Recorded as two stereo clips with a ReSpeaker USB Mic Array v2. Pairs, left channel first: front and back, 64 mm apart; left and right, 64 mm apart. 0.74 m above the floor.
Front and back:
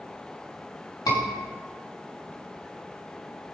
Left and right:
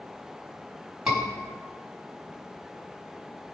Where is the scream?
10° right, 5 m.